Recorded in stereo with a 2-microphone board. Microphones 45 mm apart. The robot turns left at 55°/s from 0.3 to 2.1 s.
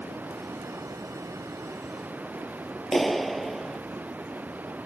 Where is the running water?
45° right; by 4.9 s 145° right.